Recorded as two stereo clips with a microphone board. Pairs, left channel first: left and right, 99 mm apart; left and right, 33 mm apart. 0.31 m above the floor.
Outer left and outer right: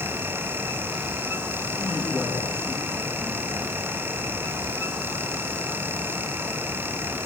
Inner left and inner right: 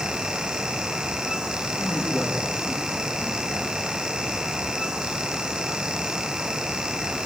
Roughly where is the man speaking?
Centre.